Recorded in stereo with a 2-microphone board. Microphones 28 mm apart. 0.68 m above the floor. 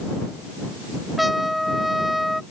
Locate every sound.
1.2 s a trumpet: 5° right (ahead or behind)